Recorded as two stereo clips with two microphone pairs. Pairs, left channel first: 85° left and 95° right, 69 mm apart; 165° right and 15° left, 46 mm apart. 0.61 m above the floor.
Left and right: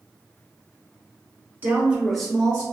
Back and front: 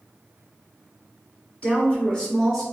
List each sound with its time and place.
1.6 s a woman speaking: 130° right, 1.1 m; by 2.6 s 125° left, 1.0 m